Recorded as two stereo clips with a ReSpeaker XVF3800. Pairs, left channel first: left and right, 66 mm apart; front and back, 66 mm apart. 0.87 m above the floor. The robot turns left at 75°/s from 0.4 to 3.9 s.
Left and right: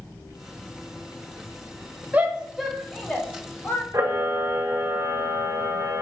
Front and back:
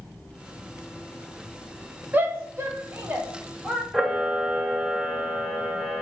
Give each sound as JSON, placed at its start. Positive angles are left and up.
{"t": 2.1, "sound": "a shout", "azimuth_deg": -135, "distance_m": 0.6}
{"t": 3.9, "sound": "a camera shutter", "azimuth_deg": -95, "distance_m": 0.6}